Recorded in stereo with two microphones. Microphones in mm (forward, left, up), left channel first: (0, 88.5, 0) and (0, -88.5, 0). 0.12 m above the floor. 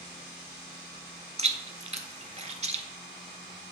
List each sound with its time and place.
1.4 s chewing: 40° right (ahead or behind), 0.7 m